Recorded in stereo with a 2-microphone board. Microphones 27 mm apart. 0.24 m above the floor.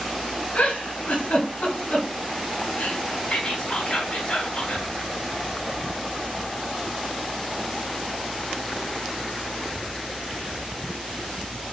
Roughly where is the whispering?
Left.